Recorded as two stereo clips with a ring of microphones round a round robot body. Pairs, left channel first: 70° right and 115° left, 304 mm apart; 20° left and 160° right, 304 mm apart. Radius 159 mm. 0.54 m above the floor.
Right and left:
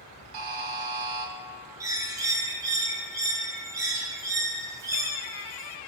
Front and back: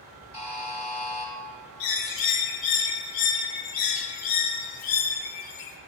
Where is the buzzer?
95° left, 0.8 m.